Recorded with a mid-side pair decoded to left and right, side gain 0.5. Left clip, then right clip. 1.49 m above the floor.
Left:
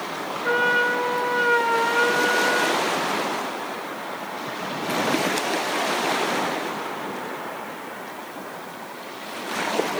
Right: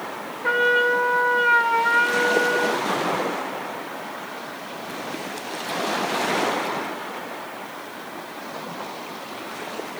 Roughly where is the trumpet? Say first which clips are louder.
Right 2 dB; ahead right.